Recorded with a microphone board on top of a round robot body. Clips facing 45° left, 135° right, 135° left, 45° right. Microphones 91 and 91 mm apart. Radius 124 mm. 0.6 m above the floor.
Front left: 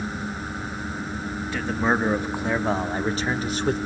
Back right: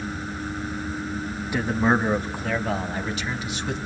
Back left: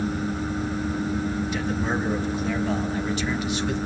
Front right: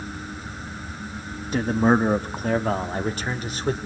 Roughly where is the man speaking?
Ahead right.